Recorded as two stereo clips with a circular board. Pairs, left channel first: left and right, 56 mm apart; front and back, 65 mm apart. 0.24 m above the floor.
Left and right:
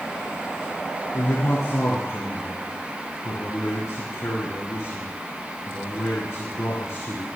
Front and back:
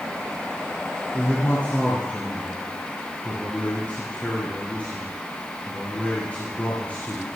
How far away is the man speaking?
About 3.5 m.